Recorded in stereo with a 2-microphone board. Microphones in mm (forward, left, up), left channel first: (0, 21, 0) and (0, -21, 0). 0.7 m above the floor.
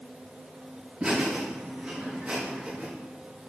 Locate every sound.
1.0 s laughter: 25° right (ahead or behind), 4.5 m; by 2.9 s 30° right (ahead or behind), 5.5 m